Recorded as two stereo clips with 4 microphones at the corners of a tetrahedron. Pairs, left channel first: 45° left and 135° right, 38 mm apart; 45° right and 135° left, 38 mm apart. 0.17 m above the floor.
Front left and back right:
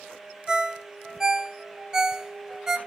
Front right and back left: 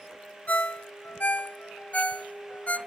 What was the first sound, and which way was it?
A ringtone, 65° right.